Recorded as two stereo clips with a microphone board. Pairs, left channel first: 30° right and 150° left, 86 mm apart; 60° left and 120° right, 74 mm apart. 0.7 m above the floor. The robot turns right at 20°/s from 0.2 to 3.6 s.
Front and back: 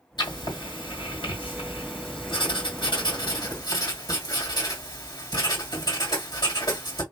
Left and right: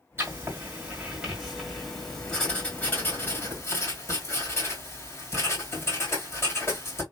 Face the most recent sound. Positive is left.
turn(degrees=5)